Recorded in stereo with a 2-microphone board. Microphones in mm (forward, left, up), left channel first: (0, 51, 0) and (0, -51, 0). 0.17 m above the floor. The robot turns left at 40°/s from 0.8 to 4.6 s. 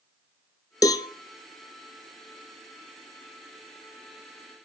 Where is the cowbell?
35° left (ahead or behind), 0.5 m; by 1.1 s 45° left (ahead or behind), 0.5 m.